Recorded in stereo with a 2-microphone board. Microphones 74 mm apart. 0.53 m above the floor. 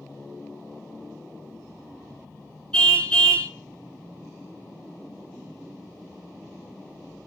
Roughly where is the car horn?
Centre.